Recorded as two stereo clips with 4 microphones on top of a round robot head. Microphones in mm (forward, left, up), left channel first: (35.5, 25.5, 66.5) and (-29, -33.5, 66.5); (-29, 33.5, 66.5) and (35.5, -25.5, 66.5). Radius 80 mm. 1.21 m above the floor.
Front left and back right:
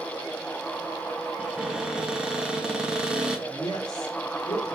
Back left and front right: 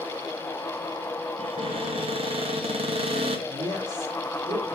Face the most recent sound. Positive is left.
turn(degrees=0)